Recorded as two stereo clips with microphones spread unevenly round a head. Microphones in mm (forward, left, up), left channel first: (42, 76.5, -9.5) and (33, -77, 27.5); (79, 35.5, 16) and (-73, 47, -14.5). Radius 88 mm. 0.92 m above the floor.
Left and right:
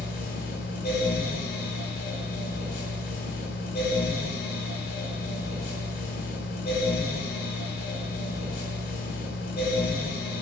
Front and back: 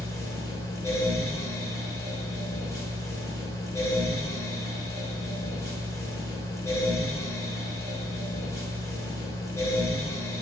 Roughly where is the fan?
Ahead left.